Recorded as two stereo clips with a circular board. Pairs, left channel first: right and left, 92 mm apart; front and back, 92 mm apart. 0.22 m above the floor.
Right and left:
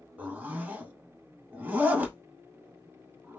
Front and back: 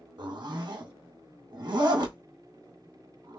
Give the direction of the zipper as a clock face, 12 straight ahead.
7 o'clock.